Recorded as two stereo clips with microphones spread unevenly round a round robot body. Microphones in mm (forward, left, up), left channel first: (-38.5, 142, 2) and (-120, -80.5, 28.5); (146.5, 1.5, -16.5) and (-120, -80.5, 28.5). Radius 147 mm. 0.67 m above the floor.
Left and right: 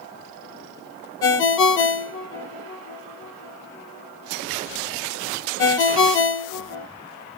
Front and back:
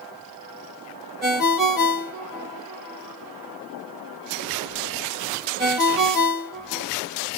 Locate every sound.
1.2 s a ringtone: 110° left, 0.7 m